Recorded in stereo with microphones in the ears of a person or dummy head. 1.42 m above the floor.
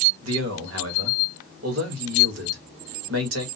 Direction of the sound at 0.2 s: 70° right (ahead or behind).